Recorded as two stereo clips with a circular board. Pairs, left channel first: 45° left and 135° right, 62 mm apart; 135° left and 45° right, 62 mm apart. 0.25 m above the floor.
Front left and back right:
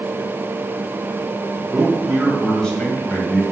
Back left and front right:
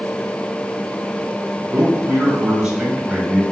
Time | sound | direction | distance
1.7 | a man speaking | 115° right | 1.5 m